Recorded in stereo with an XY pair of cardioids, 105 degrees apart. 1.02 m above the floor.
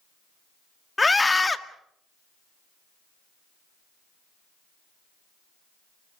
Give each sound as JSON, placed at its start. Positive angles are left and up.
{"t": 1.0, "sound": "a scream", "azimuth_deg": 20, "distance_m": 1.8}